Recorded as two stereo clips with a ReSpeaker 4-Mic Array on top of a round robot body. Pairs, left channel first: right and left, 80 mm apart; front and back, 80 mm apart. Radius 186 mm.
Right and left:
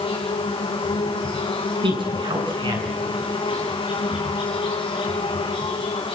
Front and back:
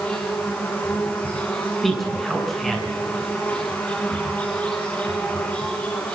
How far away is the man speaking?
About 8 m.